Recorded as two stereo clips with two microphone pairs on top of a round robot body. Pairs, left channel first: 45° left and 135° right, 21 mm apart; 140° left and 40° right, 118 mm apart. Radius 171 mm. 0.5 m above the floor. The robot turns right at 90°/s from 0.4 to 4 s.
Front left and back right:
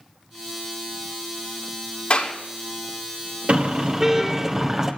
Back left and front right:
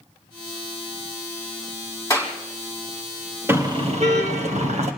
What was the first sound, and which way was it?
A clap, 80° left.